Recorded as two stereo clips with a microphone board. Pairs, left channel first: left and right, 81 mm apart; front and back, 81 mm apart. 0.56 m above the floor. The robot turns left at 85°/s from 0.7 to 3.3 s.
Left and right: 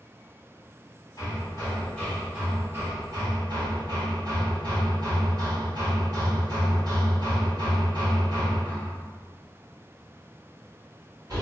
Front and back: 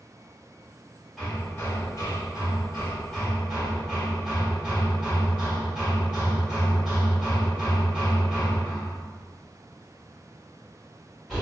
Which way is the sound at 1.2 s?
90° left.